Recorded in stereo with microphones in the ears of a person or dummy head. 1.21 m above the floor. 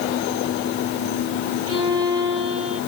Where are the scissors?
No scissors in this recording.